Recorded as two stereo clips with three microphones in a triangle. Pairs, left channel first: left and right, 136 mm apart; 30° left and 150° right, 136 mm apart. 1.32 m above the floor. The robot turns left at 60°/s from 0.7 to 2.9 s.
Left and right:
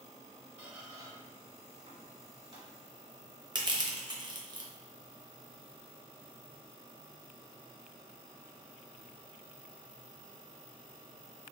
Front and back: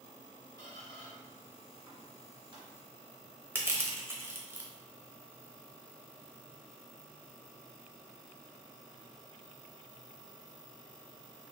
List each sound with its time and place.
0.6 s a squeak: 15° right, 1.5 m; by 2.6 s 130° right, 1.5 m
3.5 s crushing: 85° right, 0.6 m